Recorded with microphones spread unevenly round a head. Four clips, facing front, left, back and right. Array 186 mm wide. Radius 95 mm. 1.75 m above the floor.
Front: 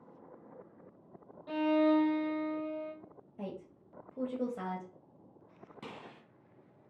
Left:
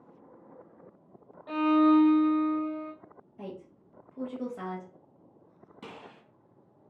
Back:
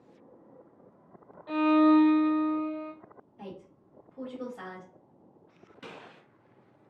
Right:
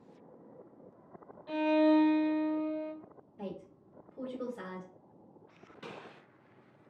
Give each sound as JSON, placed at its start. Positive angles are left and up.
{"t": 1.5, "sound": "a violin", "azimuth_deg": 110, "distance_m": 1.3}
{"t": 3.4, "sound": "a woman speaking", "azimuth_deg": 0, "distance_m": 1.0}
{"t": 5.8, "sound": "a gunshot", "azimuth_deg": 50, "distance_m": 1.9}